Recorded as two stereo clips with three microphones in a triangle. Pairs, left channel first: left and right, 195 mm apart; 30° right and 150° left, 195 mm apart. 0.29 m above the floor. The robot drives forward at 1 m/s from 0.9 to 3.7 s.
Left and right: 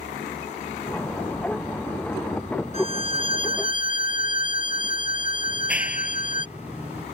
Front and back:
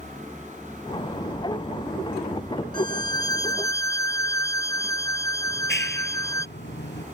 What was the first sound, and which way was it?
A violin, 35° left.